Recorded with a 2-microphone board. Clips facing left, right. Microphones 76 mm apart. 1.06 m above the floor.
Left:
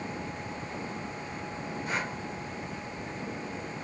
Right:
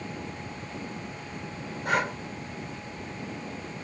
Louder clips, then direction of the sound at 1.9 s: Right 8 dB; 70° right (ahead or behind).